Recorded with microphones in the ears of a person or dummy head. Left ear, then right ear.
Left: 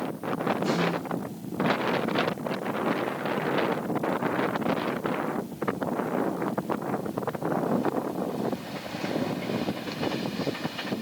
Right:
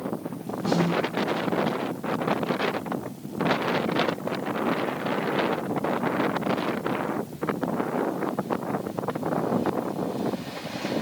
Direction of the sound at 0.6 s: 70° left (ahead or behind).